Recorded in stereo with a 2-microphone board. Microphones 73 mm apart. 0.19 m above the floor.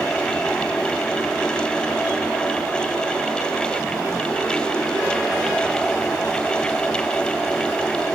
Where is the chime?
I don't hear a chime.